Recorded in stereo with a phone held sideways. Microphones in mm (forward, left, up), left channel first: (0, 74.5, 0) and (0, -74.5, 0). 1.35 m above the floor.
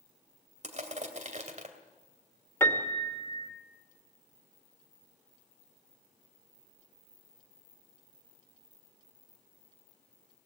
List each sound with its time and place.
0.6 s crushing: 50° right (ahead or behind), 2.5 m
2.6 s a piano: 15° left (ahead or behind), 2 m